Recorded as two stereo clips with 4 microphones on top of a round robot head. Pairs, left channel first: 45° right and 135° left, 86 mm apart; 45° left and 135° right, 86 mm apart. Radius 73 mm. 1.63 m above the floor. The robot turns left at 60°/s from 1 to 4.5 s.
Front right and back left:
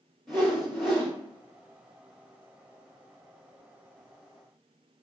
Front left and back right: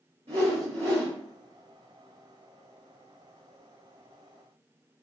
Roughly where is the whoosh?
Behind right.